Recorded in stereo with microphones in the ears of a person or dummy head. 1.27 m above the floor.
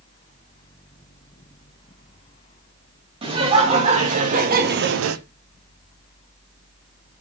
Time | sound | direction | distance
3.2 | laughter | 30° right (ahead or behind) | 2.5 m